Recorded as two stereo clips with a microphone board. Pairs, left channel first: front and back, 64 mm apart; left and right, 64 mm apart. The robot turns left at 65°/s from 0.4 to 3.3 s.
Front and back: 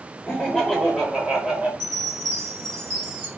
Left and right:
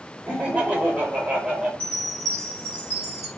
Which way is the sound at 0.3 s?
50° right.